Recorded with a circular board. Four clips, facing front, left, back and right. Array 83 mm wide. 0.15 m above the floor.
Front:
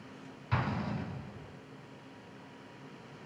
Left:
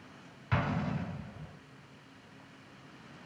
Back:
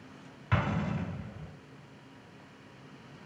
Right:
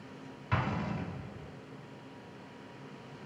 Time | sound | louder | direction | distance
0.5 | an explosion | left 1 dB, back 3 dB | straight behind | 0.9 m